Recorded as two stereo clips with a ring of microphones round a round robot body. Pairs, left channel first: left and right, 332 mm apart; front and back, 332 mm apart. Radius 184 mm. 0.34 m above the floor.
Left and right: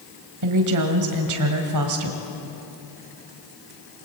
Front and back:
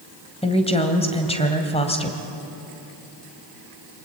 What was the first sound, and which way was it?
A woman speaking, 70° right.